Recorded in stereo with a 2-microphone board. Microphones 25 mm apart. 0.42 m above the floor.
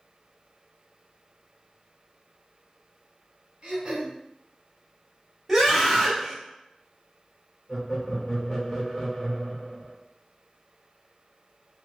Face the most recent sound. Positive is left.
turn(degrees=30)  # may be behind; listen again after turning